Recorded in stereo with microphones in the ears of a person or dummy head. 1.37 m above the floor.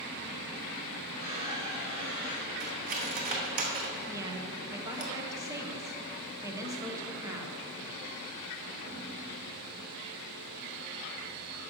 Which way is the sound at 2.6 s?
45° right (ahead or behind).